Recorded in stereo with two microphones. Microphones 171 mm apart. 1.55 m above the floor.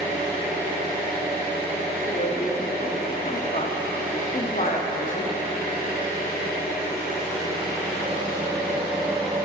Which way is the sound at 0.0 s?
40° right (ahead or behind).